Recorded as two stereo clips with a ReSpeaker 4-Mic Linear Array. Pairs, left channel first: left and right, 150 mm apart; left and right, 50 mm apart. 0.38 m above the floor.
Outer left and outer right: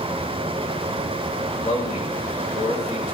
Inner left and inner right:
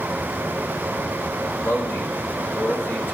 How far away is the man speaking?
About 1.7 m.